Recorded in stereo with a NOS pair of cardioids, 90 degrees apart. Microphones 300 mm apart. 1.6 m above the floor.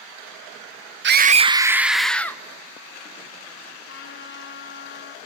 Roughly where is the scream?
Ahead right.